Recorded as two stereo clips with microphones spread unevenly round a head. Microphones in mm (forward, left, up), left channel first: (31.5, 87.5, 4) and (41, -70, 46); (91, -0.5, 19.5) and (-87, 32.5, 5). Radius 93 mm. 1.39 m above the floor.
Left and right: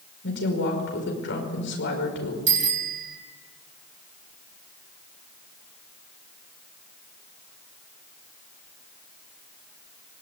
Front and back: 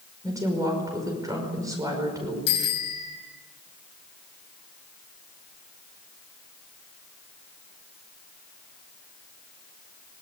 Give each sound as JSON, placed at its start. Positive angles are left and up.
{"t": 0.2, "sound": "a woman speaking", "azimuth_deg": 95, "distance_m": 5.5}
{"t": 2.5, "sound": "a bicycle bell", "azimuth_deg": -50, "distance_m": 6.5}